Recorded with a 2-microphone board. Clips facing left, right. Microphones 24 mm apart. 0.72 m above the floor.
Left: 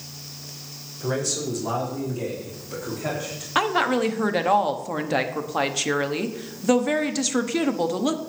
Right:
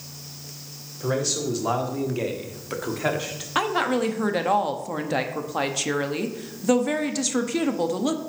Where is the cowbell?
No cowbell in this recording.